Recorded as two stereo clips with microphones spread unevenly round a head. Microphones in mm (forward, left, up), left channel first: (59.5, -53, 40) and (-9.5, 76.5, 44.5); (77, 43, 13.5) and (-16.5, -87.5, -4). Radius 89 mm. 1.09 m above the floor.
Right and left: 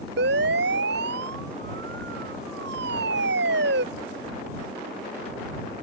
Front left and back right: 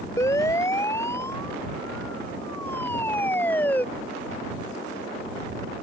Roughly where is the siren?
Behind left.